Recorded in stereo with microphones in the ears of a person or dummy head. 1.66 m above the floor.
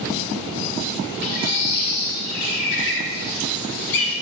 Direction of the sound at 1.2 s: 50° left (ahead or behind).